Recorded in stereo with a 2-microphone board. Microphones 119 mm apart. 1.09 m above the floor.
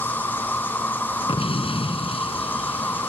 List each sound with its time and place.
0.0 s an insect: 15° left (ahead or behind)
1.3 s an explosion: 55° left (ahead or behind)